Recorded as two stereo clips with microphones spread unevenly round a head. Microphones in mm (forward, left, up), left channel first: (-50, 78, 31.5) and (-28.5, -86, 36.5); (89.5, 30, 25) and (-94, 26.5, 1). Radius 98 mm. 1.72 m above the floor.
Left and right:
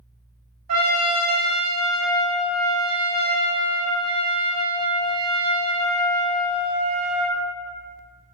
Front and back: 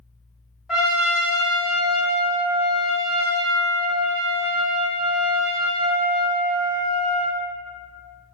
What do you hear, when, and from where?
0.7 s a trumpet: 85° right, 0.7 m